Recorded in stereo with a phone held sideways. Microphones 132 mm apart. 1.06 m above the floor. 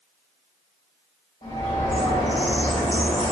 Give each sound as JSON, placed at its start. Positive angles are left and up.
{"t": 1.4, "sound": "a bird", "side_deg": 50, "distance_m": 2.0}